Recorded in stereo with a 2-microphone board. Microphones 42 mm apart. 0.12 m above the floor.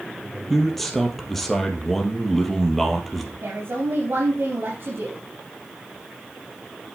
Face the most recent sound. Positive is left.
turn(degrees=-60)  # may be behind; listen again after turning